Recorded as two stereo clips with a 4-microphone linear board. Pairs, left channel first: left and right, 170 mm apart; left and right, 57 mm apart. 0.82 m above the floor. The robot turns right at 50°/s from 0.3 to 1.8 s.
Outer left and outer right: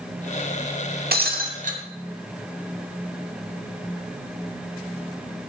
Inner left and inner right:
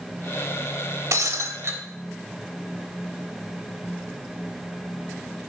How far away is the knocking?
No knocking in this recording.